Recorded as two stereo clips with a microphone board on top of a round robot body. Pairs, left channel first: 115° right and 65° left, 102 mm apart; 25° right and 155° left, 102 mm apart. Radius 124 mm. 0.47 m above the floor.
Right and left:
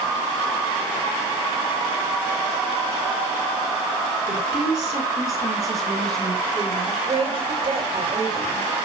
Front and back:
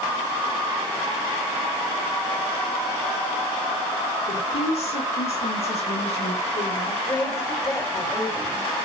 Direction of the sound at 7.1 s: 35° left.